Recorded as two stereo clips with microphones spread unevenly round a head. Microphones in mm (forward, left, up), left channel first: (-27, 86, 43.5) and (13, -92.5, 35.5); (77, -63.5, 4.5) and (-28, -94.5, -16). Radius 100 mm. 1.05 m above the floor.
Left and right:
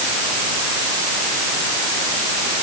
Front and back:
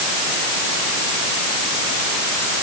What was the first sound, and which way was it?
Only background noise.